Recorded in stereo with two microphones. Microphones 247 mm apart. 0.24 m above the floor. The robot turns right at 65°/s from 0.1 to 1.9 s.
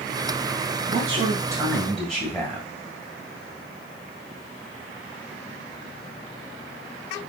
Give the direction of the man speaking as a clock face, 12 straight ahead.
2 o'clock.